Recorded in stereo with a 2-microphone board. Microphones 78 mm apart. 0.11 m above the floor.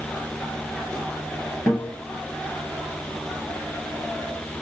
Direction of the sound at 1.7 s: 30° left (ahead or behind).